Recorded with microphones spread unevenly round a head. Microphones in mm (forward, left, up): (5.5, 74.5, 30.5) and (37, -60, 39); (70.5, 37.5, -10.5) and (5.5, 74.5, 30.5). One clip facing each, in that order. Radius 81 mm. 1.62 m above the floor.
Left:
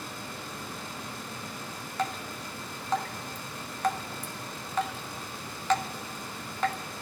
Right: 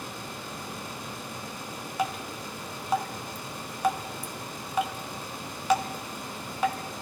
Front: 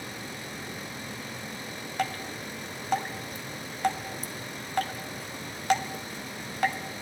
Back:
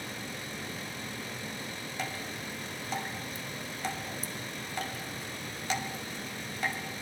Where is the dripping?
Straight ahead, 2.5 m.